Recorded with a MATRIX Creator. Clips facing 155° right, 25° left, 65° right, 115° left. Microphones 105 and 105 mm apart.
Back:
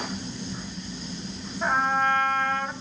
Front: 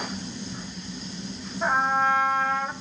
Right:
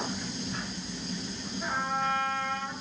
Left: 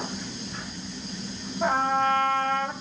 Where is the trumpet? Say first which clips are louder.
Front 1 dB, left 8 dB; 105° left, 2 m.